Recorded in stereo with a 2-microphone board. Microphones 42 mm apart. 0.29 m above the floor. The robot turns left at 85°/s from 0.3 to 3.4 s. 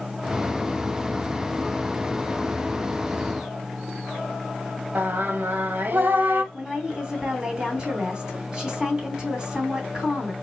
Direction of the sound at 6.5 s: 15° right (ahead or behind).